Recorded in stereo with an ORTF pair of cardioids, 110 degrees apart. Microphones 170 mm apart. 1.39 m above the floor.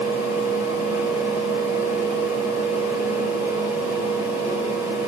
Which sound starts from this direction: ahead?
A fan, at 0.0 s.